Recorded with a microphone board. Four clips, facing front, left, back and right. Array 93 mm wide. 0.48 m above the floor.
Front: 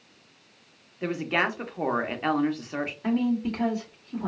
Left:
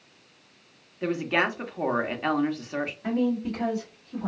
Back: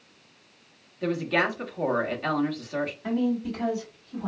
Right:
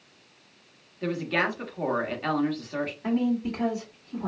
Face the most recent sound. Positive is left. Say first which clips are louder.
# even, front 3 dB
turn(degrees=-15)